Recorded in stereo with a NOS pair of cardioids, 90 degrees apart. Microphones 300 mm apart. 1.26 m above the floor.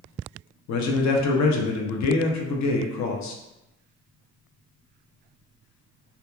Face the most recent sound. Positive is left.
turn(degrees=65)